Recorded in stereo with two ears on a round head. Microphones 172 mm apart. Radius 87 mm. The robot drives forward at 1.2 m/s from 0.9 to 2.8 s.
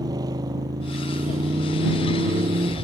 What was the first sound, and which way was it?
A motorcycle, 20° right (ahead or behind).